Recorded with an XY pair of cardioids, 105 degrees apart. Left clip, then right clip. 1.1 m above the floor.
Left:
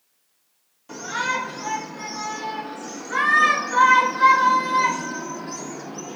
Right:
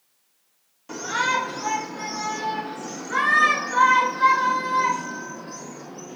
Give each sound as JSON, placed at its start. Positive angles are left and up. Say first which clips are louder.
{"t": 0.9, "sound": "a shout", "louder": "right 2 dB", "azimuth_deg": -20, "distance_m": 3.0}